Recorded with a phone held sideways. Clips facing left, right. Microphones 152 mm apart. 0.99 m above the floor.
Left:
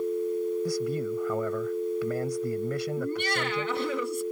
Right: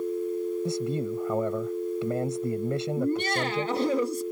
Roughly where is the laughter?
Right.